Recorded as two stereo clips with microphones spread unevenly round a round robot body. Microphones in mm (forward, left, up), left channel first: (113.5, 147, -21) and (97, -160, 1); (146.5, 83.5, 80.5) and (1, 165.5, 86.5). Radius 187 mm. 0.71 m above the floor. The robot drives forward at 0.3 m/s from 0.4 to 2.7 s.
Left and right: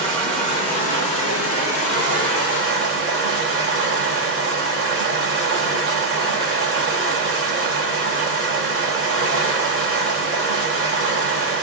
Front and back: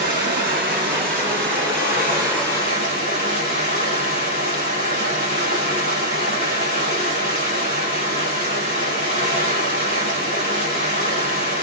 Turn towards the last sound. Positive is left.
turn(degrees=175)